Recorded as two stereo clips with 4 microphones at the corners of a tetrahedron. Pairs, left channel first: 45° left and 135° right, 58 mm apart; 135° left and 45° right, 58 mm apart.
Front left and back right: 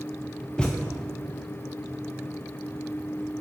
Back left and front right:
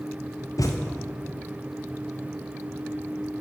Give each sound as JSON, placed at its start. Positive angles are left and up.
{"t": 0.6, "sound": "a thud", "azimuth_deg": 120, "distance_m": 1.6}